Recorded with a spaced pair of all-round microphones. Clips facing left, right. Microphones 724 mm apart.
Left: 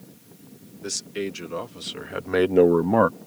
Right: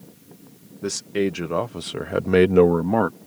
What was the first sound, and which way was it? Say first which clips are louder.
A man speaking: right 7 dB; 75° right (ahead or behind).